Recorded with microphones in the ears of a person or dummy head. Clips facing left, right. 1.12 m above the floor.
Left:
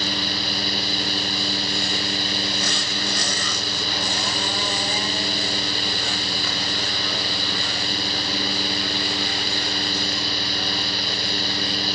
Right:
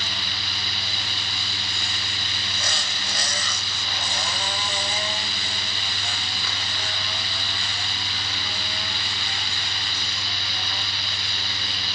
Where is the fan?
40° left (ahead or behind), 0.9 m.